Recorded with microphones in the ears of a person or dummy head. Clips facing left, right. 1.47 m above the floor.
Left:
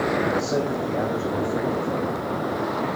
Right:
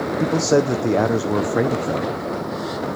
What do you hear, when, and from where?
0.2 s a man speaking: 70° right (ahead or behind), 0.7 m